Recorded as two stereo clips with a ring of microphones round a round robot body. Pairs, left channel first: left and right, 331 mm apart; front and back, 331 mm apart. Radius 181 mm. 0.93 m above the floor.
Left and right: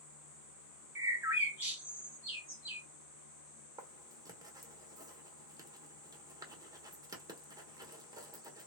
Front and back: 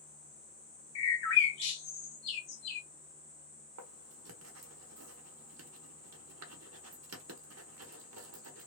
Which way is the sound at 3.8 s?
165° right.